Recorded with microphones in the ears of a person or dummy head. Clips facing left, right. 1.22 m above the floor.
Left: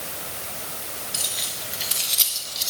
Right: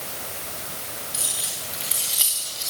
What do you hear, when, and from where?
1.1 s keys jangling: 25° left (ahead or behind), 4 m